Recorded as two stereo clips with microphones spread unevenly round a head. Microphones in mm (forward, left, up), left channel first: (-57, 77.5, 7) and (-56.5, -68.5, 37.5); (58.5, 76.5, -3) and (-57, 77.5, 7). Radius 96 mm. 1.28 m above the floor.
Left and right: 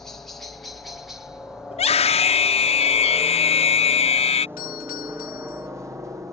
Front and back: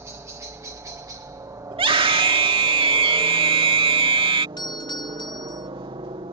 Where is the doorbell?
50° left.